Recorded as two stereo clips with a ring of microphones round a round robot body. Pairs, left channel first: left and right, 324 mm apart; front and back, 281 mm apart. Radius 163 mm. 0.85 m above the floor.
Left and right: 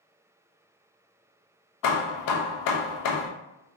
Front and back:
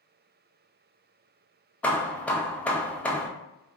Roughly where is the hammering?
Left.